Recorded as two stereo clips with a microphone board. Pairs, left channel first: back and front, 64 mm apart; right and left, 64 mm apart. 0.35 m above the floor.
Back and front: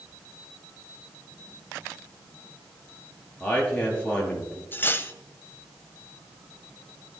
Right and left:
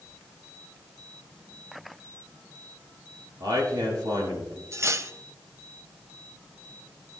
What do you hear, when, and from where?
3.4 s a man speaking: 110° left, 5.5 m
4.7 s cutlery clinking: 125° left, 0.9 m